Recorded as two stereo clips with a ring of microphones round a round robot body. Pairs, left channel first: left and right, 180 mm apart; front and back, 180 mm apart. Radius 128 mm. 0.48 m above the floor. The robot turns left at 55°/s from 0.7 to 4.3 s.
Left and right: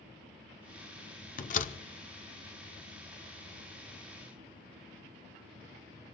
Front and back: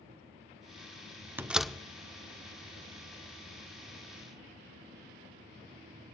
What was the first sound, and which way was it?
A door slam, 105° left.